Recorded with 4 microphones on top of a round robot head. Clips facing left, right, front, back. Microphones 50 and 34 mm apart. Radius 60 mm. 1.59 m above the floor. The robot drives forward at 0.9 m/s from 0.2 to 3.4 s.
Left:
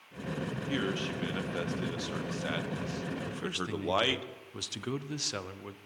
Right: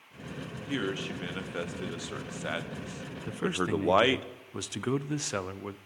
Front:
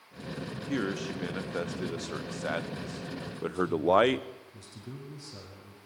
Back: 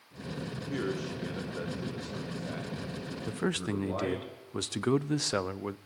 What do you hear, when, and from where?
0.7 s a man speaking: 5° right, 3 m; by 4.3 s 25° right, 0.9 m
3.3 s a man speaking: 155° right, 0.6 m; by 5.8 s 160° right, 0.7 m